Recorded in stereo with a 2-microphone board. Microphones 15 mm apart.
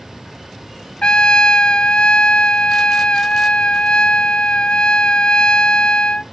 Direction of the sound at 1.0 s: 75° left (ahead or behind).